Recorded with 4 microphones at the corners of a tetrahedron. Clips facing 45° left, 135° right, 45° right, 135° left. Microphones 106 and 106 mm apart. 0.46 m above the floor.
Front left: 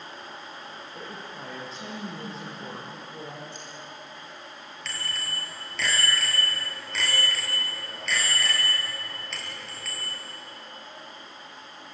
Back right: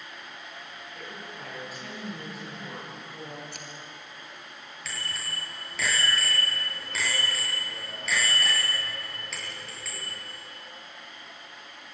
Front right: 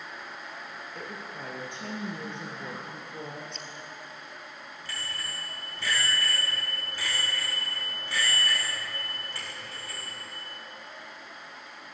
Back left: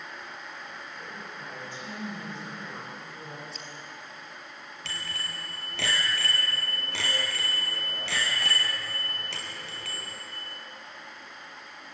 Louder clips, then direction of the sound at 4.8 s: Front left 1 dB, back left 1 dB; 140° left.